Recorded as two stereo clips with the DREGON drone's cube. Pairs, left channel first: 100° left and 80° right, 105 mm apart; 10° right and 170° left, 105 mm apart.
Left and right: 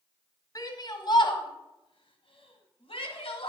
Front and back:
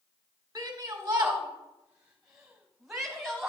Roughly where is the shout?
Behind left.